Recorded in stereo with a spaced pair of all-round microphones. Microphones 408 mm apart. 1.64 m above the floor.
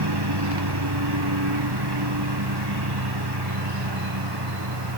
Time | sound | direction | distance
0.0 | a lawn mower | 75° right (ahead or behind) | ?